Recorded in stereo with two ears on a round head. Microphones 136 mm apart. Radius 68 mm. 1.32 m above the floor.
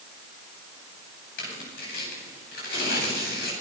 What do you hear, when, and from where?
1.4 s tearing paper: 70° left (ahead or behind), 9 m